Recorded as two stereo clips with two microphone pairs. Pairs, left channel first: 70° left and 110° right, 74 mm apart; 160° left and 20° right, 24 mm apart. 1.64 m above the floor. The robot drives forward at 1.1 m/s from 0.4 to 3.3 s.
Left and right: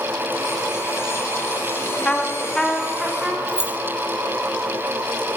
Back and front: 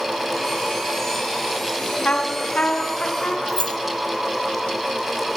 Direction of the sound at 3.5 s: 175° left.